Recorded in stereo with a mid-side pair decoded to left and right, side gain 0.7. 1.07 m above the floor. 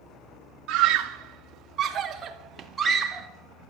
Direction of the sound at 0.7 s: 60° right.